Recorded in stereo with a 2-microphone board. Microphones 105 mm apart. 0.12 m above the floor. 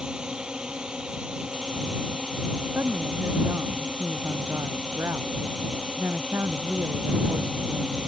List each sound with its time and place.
0.0 s a drone: 10° right (ahead or behind)
2.8 s a woman speaking: 25° right (ahead or behind)